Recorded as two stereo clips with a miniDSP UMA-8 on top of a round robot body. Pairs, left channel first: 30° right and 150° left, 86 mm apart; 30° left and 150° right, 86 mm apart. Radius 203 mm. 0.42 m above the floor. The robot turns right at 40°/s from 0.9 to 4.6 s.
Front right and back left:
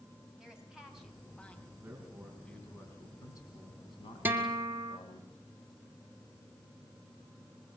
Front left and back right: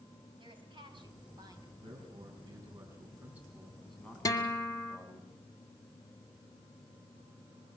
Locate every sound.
0.4 s a woman speaking: 125° right, 5 m; by 1.7 s 95° right, 5 m
1.8 s a man speaking: 140° right, 4.5 m; by 5.2 s 25° right, 4.5 m
4.2 s a guitar: 80° left, 1.7 m; by 5.0 s 95° left, 1.7 m